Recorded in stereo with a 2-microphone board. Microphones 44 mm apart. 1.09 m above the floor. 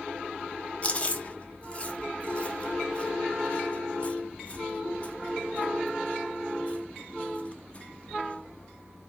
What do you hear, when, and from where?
0.8 s chewing: 30° left (ahead or behind), 0.8 m